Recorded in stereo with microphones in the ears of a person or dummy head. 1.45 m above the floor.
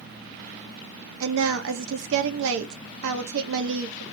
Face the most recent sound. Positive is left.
turn(degrees=-70)  # may be behind; listen again after turning